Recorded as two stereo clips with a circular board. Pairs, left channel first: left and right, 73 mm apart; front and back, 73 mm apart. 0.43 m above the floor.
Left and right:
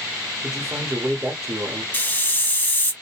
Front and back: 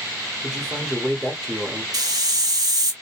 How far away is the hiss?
About 0.7 m.